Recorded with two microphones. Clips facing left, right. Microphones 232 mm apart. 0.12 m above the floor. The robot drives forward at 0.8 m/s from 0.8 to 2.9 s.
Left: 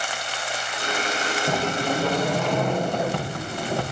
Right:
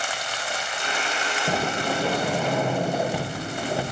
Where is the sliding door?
10° right (ahead or behind), 6 m; by 3.8 s 5° right (ahead or behind), 7 m.